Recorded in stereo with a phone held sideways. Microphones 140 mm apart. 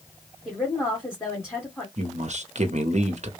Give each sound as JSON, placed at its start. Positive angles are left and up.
{"t": 0.5, "sound": "a woman speaking", "side_deg": 15, "distance_m": 1.9}
{"t": 2.0, "sound": "a man speaking", "side_deg": -60, "distance_m": 0.9}